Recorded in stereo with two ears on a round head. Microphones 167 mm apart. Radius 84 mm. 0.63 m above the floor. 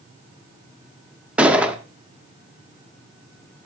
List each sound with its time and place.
1.4 s a gunshot: 5° right (ahead or behind), 1.0 m